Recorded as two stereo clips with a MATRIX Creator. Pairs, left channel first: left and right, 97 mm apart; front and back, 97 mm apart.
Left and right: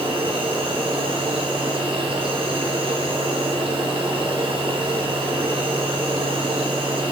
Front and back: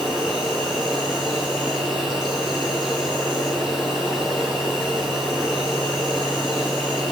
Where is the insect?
90° right, 5 m.